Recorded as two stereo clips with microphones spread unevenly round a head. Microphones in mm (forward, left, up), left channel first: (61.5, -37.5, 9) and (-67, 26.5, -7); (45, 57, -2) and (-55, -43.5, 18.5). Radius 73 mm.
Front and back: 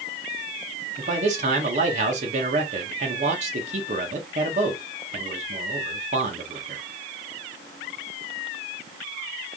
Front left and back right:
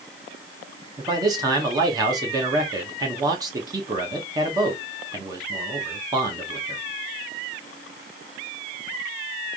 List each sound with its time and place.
1.0 s a man speaking: 160° left, 1.4 m